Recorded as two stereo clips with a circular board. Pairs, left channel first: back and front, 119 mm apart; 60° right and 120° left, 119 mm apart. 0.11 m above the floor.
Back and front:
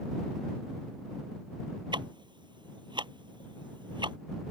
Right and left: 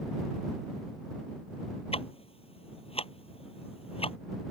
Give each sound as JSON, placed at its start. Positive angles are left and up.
{"t": 1.9, "sound": "ticking", "azimuth_deg": -40}